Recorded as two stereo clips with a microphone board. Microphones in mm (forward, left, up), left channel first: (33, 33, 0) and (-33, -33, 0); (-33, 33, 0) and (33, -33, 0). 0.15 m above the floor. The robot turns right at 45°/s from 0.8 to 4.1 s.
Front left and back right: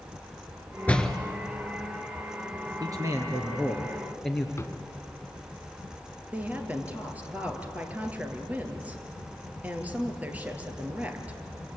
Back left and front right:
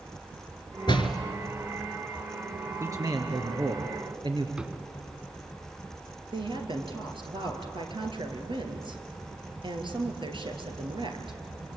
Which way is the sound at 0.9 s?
115° left.